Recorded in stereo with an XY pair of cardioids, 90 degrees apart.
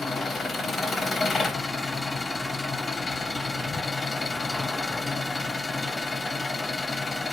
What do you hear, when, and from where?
0.0 s an engine running: 45° left, 1.2 m